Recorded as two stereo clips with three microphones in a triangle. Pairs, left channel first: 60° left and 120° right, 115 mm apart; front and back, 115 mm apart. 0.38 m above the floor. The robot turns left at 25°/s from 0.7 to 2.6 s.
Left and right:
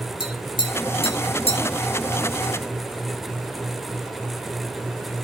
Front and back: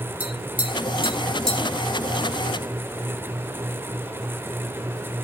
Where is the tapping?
105° left, 3.5 m; by 1.6 s 80° left, 3.5 m.